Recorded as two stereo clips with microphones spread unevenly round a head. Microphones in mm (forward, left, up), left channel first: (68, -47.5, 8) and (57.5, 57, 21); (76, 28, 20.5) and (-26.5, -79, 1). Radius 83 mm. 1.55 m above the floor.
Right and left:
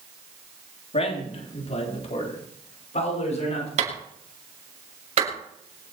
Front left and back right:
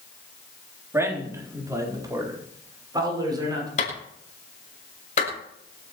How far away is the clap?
About 7 m.